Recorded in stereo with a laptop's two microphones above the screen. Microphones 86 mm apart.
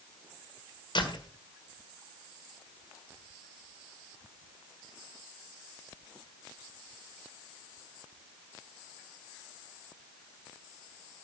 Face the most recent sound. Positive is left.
turn(degrees=60)  # may be behind; listen again after turning